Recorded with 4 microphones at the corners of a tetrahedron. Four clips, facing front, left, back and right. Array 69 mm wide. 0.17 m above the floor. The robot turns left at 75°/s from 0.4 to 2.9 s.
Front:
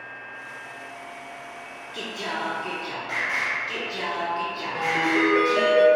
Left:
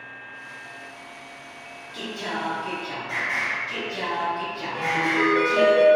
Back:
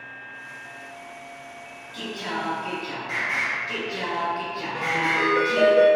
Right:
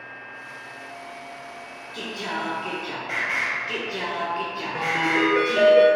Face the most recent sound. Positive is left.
turn(degrees=-65)